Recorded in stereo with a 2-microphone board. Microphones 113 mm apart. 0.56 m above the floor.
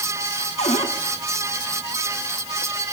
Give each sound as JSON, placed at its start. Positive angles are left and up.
{"t": 0.6, "sound": "a cupboard door", "side_deg": 80, "distance_m": 4.0}